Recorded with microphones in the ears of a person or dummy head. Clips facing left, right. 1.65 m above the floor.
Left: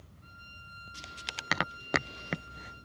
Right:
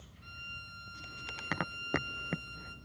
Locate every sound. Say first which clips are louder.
0.2 s a violin: right 1 dB; 35° right (ahead or behind), 3 m